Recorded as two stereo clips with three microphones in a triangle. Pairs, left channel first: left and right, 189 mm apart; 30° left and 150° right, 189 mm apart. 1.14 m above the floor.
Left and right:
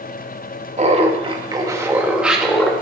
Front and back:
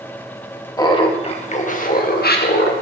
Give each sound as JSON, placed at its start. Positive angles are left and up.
{"t": 0.8, "sound": "laughter", "azimuth_deg": -40, "distance_m": 1.4}